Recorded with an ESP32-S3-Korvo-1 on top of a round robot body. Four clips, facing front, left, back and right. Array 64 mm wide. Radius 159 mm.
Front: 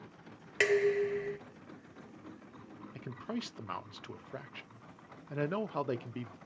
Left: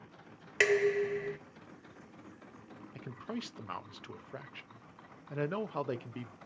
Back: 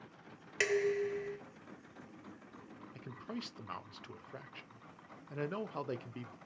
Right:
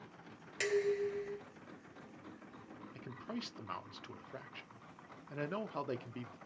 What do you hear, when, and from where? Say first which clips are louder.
0.6 s dishes clattering: left 6 dB, front 4 dB; 60° left, 0.7 m
3.0 s a man speaking: left 4 dB, front 5 dB; 35° left, 0.7 m